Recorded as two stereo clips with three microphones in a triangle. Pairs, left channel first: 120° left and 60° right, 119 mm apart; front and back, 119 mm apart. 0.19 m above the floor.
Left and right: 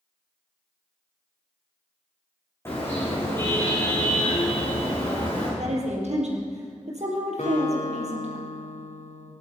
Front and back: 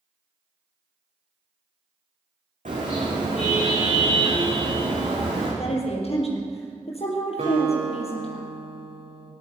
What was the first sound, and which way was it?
A car horn, 170° right.